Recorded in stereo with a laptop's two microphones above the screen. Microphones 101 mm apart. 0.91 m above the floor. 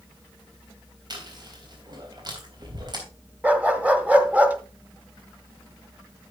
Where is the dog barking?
15° right (ahead or behind), 0.8 m.